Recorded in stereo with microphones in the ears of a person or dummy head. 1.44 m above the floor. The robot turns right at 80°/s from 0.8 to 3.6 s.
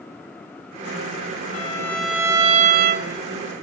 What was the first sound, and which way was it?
A violin, 140° left.